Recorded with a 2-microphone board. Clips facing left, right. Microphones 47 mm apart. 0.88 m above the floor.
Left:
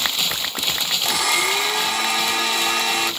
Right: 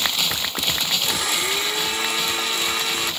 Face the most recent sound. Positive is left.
turn(degrees=85)